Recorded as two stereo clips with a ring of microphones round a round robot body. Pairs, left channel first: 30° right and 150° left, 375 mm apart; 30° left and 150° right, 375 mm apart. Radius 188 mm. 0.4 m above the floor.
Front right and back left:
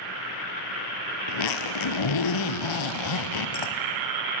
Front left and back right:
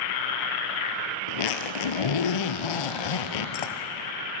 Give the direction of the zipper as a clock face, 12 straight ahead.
12 o'clock.